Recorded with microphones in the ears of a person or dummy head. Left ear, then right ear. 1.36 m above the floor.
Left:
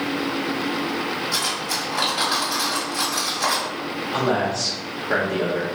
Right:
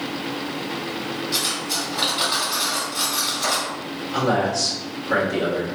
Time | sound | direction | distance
1.3 | cutlery clinking | 60° left (ahead or behind) | 1.6 m
4.1 | a man speaking | 35° left (ahead or behind) | 1.5 m